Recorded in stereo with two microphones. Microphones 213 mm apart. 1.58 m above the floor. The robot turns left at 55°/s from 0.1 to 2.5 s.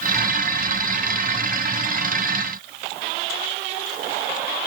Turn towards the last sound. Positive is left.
No sound to turn to.